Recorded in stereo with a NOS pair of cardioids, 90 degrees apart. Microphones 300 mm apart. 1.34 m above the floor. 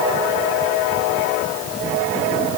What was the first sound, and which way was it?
Only background noise.